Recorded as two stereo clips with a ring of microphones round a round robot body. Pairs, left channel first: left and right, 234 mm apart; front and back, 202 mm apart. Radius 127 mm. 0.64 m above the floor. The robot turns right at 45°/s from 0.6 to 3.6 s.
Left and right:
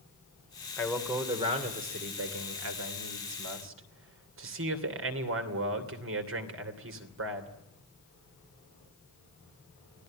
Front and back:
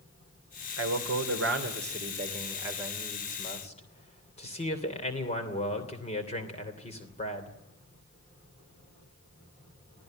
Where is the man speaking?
170° left, 3 m; by 7.5 s 60° right, 3 m.